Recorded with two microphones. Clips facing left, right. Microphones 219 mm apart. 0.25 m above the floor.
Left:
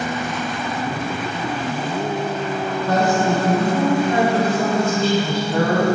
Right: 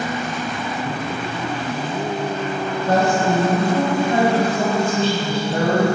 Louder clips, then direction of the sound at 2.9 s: Right 1 dB; 30° right (ahead or behind).